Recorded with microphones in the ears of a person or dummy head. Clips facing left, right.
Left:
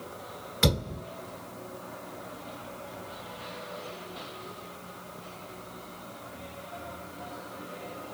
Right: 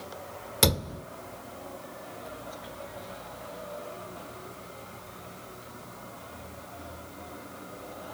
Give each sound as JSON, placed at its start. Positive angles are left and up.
{"t": 0.6, "sound": "a thud", "side_deg": -45, "distance_m": 1.5}